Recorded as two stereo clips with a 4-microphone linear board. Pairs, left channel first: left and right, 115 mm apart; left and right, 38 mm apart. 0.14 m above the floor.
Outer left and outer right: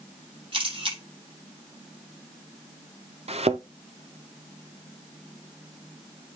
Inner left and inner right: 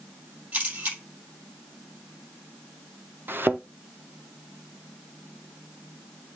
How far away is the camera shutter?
About 5 m.